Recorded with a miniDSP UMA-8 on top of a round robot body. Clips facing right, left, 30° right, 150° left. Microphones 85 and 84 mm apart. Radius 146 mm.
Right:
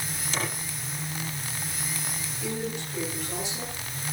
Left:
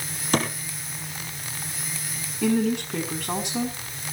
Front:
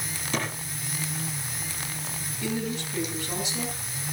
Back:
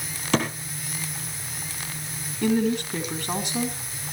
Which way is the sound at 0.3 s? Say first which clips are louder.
Left 8 dB, back 7 dB; 130° left.